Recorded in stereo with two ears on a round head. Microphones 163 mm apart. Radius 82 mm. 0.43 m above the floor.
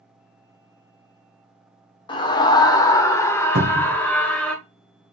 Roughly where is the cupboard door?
Right.